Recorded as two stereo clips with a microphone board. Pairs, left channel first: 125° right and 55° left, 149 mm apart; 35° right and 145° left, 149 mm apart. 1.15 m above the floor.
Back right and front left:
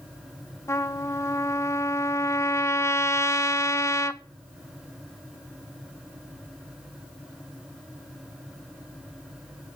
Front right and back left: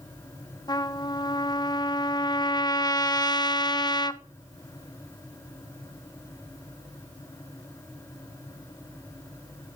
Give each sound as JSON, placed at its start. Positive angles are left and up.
{"t": 0.7, "sound": "a trumpet", "azimuth_deg": -70, "distance_m": 0.7}